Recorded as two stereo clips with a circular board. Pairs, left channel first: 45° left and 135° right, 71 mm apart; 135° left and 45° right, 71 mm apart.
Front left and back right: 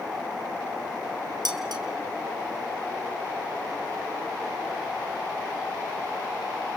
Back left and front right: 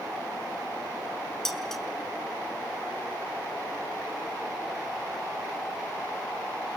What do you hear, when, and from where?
1.4 s dishes clattering: 140° right, 3 m